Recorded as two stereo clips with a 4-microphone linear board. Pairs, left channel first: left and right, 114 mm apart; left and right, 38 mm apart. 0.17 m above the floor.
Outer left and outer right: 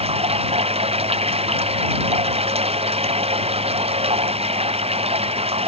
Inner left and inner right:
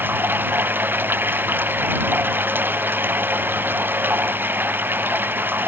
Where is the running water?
60° right (ahead or behind).